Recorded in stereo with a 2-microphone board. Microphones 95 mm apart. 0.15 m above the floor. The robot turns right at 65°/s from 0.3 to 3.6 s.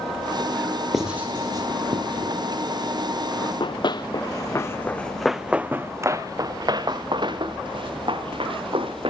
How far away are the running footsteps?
About 1.2 m.